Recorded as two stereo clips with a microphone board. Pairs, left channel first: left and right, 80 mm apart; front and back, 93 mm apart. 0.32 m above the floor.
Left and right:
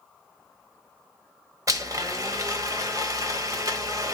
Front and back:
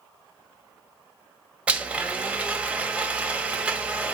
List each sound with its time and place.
1.7 s a blender: 110° right, 1.1 m